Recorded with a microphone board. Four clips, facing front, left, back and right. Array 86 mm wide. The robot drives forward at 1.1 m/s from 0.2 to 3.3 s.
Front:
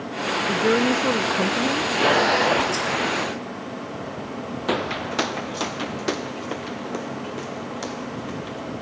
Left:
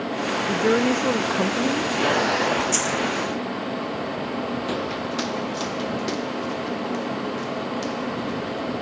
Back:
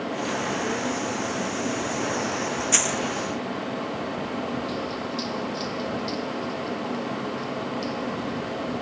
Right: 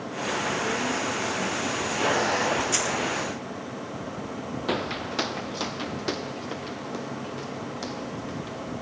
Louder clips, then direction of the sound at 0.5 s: Left 12 dB, front 7 dB; 45° left.